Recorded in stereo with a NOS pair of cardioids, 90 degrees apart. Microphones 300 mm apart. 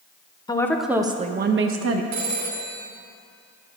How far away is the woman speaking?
About 0.8 m.